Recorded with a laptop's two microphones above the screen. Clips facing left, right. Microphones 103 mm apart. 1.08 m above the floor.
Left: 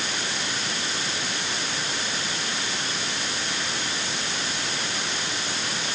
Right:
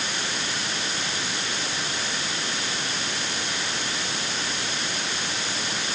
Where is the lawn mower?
No lawn mower in this recording.